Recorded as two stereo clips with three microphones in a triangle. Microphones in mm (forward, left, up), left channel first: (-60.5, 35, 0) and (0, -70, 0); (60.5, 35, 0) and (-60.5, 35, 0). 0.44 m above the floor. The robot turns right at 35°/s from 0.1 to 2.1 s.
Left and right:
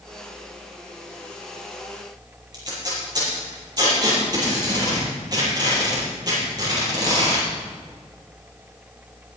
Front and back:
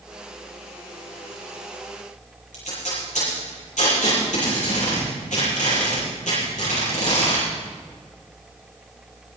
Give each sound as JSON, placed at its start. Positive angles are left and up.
{"t": 2.5, "sound": "tape being pulled", "azimuth_deg": 0, "distance_m": 8.5}